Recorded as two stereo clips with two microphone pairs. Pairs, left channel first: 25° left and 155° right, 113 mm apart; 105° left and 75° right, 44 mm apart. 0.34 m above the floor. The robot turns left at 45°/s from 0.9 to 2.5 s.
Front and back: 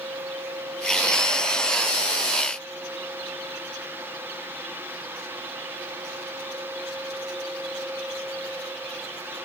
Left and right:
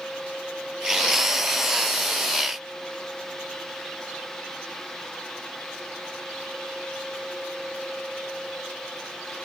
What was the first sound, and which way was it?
Only background noise.